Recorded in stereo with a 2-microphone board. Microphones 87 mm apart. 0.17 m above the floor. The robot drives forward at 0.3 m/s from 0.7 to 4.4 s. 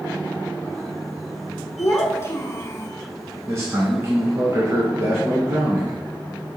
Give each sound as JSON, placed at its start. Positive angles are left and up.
{"t": 1.8, "sound": "a child speaking", "side_deg": 30, "distance_m": 0.8}
{"t": 3.5, "sound": "a man speaking", "side_deg": -30, "distance_m": 1.4}